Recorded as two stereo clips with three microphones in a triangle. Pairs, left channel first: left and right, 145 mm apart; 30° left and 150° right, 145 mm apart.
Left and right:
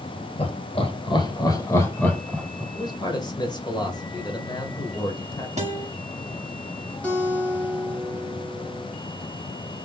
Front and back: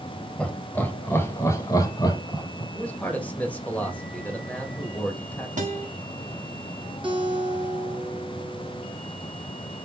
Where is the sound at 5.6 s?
125° right, 1.3 m.